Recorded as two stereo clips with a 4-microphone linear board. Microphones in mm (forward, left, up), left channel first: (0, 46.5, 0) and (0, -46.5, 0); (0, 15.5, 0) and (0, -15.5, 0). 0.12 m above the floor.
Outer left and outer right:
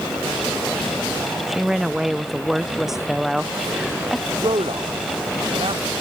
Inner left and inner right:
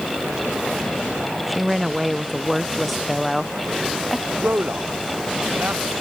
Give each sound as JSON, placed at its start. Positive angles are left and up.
{"t": 1.5, "sound": "a woman speaking", "side_deg": -5}
{"t": 4.3, "sound": "a man speaking", "side_deg": -80}